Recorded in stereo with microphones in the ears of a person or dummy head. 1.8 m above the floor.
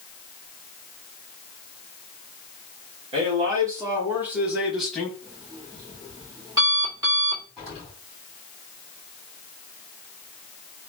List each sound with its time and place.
3.1 s a man speaking: 30° right (ahead or behind), 2 m; by 5.1 s 5° left (ahead or behind), 2.5 m
5.2 s an alarm clock: 20° right (ahead or behind), 2.0 m
7.6 s an explosion: 5° right (ahead or behind), 3 m